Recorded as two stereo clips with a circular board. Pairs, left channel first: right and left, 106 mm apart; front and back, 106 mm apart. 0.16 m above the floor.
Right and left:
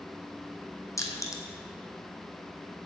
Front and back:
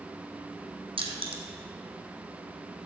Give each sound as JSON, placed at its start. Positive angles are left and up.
{"t": 1.0, "sound": "crushing", "azimuth_deg": -150, "distance_m": 1.4}